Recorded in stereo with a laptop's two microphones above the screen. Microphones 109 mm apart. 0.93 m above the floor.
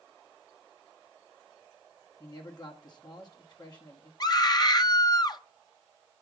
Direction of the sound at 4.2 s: 35° left (ahead or behind).